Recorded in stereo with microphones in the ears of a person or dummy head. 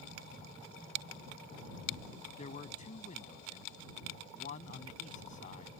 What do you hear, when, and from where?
2.4 s a man speaking: 35° left (ahead or behind)